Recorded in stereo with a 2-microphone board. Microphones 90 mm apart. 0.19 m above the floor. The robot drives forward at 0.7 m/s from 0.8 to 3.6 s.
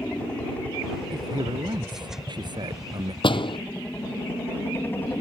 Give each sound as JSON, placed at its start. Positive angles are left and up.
{"t": 0.0, "sound": "a helicopter", "side_deg": 15}
{"t": 1.1, "sound": "a man speaking", "side_deg": -55}
{"t": 3.2, "sound": "a door slam", "side_deg": 65}